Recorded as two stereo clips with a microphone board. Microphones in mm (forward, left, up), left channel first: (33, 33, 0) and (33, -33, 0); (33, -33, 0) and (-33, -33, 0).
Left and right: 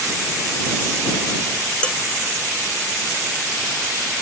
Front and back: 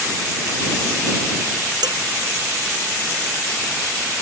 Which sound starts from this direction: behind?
Dishes clattering, at 1.8 s.